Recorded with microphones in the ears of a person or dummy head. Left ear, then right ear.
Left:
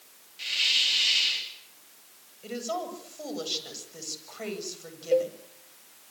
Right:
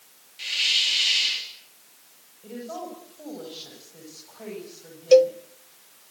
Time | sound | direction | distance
0.4 | a hiss | 10° right (ahead or behind) | 3.5 m
2.4 | a woman speaking | 80° left | 8.5 m
5.1 | a cowbell | 70° right (ahead or behind) | 0.5 m